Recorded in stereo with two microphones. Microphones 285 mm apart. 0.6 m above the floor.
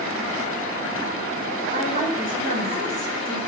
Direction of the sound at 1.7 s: 25° right (ahead or behind).